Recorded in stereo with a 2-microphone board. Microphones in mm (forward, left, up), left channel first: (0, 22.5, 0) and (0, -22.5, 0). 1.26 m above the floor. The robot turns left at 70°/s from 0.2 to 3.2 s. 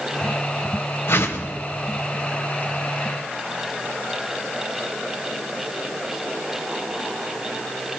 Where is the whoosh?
90° left, 1.9 m; by 1.5 s 60° left, 1.9 m.